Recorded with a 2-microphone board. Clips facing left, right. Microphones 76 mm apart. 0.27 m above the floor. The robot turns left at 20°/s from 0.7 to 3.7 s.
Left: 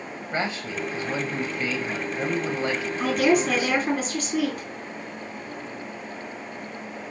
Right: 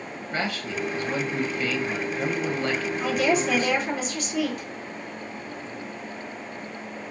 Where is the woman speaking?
60° left (ahead or behind), 3.5 m; by 4.7 s 50° left (ahead or behind), 3.5 m.